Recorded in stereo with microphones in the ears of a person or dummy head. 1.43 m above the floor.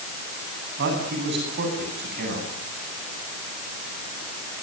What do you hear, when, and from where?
0.8 s a man speaking: 55° right (ahead or behind), 9.5 m